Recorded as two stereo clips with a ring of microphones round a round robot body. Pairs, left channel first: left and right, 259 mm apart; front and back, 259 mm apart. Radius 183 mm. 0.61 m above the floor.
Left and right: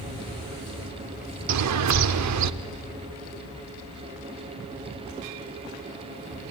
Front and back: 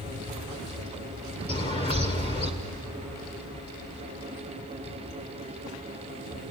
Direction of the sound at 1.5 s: 75° right.